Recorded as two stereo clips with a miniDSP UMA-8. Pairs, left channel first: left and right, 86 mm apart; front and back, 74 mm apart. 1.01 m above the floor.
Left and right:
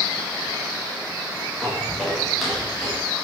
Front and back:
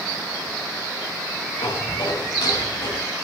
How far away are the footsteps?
About 6.5 m.